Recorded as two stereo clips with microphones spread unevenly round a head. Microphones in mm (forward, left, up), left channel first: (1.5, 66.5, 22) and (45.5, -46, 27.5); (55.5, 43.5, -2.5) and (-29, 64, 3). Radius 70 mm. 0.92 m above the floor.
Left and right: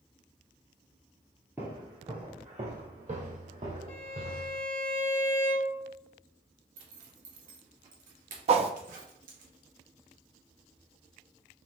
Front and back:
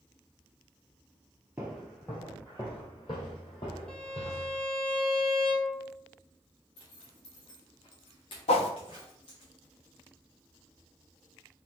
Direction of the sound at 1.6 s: 130° right.